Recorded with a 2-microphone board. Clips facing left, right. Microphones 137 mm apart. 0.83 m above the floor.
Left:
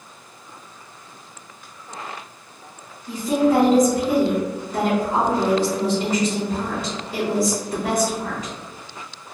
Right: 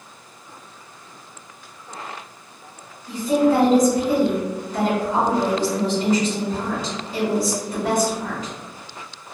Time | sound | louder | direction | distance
3.1 | a woman speaking | right 1 dB | 45° left (ahead or behind) | 1.5 m